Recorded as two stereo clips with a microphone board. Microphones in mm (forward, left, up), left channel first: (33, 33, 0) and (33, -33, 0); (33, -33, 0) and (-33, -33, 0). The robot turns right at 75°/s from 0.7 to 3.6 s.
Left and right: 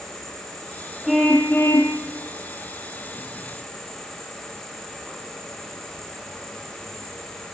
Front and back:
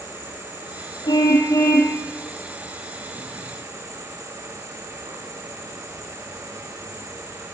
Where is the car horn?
10° right, 3 m; by 2.0 s 60° left, 3 m.